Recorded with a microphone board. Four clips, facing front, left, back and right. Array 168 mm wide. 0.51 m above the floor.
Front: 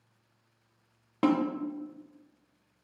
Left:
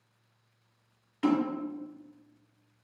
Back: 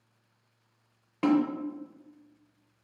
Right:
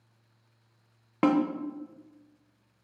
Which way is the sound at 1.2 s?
75° right.